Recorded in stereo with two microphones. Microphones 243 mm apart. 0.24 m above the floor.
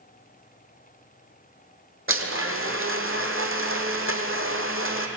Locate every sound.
2.1 s a blender: 60° right (ahead or behind), 2 m